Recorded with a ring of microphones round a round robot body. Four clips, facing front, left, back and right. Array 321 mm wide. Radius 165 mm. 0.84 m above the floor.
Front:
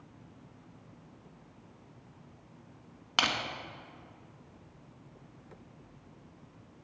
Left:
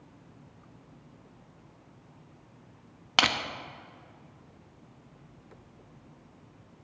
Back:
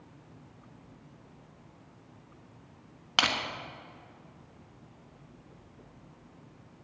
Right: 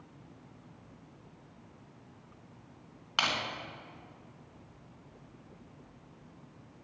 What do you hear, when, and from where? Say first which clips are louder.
3.2 s crushing: left 5 dB, back 2 dB; 95° left, 1.3 m